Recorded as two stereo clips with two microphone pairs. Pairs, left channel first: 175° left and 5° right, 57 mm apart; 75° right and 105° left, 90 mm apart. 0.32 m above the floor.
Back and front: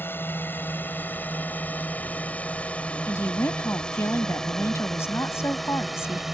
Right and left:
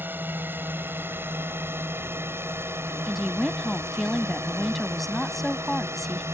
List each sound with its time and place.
0.0 s a drone: 160° left; by 6.3 s 75° left
3.1 s a woman speaking: 165° right